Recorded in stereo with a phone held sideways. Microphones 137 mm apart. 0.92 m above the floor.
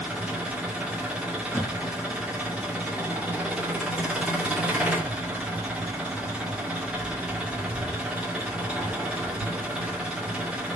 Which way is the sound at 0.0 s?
10° right (ahead or behind).